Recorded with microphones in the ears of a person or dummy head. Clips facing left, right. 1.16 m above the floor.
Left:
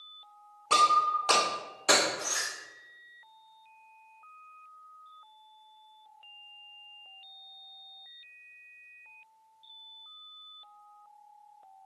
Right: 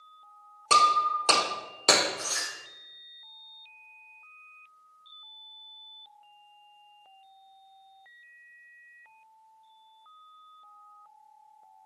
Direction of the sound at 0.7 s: 55° right (ahead or behind).